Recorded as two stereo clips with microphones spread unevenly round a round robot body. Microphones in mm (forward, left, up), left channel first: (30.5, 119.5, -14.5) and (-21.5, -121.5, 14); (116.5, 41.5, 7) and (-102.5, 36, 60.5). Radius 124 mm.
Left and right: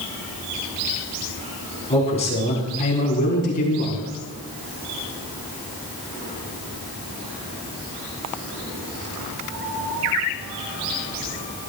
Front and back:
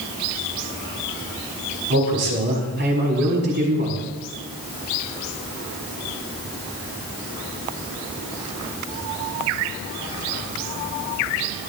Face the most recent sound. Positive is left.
turn(degrees=135)